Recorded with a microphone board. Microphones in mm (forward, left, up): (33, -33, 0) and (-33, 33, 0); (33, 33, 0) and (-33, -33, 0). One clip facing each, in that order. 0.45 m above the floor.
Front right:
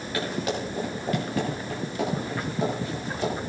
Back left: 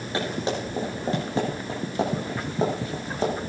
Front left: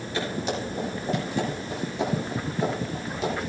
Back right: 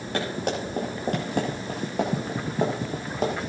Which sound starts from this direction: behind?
Running footsteps, at 0.1 s.